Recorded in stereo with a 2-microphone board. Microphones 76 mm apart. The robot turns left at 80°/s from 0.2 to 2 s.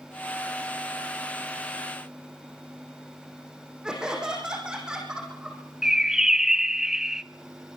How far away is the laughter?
About 5.5 m.